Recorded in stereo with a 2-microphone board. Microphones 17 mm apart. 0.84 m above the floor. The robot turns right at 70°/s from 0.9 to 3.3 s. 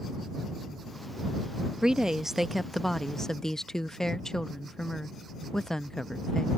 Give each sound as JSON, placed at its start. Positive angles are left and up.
{"t": 1.8, "sound": "a woman speaking", "azimuth_deg": -65}